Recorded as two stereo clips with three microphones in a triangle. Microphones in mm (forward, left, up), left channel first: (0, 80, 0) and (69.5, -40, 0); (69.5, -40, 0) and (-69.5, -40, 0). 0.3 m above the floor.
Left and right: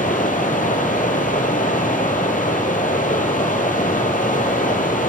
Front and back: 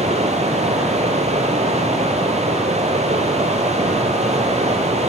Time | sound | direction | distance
0.0 | running water | 140° left | 3 m